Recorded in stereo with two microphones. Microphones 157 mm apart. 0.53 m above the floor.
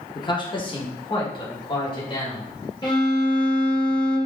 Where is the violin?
25° left (ahead or behind), 1.5 m.